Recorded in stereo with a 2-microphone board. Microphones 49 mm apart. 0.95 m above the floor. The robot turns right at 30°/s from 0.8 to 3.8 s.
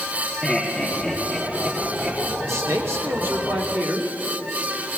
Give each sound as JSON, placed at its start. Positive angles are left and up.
{"t": 0.4, "sound": "laughter", "side_deg": 15, "distance_m": 1.6}
{"t": 2.5, "sound": "a man speaking", "azimuth_deg": -80, "distance_m": 2.0}